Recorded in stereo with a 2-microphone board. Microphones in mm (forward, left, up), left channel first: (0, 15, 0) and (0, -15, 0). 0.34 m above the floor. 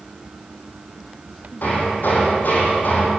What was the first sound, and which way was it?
Hammering, 85° left.